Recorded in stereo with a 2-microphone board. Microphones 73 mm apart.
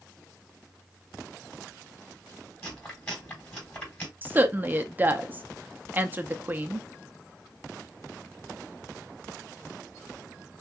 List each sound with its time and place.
2.6 s chewing: 30° left (ahead or behind), 3.5 m
4.2 s a woman speaking: 25° right (ahead or behind), 0.6 m